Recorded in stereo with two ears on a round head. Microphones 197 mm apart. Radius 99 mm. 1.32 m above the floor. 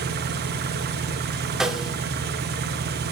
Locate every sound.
0.0 s an engine running: 45° right (ahead or behind), 0.8 m
1.6 s a snare drum: 5° right (ahead or behind), 0.7 m